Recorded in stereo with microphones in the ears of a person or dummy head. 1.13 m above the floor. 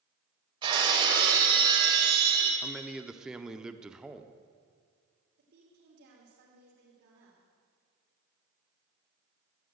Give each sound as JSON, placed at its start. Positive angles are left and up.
{"t": 0.6, "sound": "breaking glass", "side_deg": -25, "distance_m": 2.5}
{"t": 2.6, "sound": "a man speaking", "side_deg": -5, "distance_m": 0.6}
{"t": 5.4, "sound": "a woman speaking", "side_deg": -60, "distance_m": 3.0}